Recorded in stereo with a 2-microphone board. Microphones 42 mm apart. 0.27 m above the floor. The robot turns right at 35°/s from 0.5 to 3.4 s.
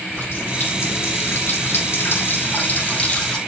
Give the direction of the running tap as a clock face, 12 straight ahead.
10 o'clock.